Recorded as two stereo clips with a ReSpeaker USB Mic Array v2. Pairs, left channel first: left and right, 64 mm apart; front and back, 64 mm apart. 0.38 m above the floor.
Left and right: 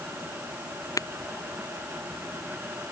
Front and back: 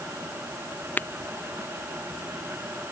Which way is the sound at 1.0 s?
60° left.